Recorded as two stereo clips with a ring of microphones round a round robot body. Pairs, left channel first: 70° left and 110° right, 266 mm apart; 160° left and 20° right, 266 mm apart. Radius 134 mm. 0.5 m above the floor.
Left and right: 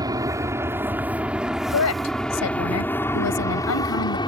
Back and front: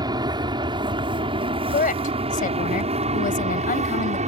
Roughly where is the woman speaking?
Left.